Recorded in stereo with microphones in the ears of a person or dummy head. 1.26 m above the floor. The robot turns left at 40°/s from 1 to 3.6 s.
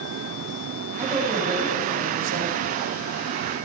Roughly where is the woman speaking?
Ahead.